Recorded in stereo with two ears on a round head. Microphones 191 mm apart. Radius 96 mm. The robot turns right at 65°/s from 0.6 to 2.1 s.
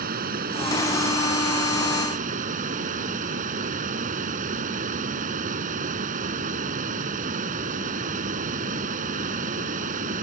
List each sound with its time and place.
0.0 s running water: 135° right; by 10.2 s 40° right